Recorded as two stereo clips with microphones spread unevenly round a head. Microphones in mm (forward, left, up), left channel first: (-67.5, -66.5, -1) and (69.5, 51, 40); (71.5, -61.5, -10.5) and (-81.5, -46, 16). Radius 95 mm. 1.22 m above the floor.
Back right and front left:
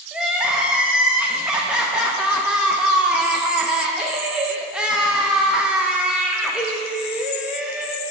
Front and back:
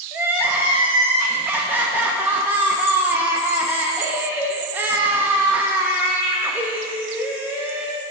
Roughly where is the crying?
Left.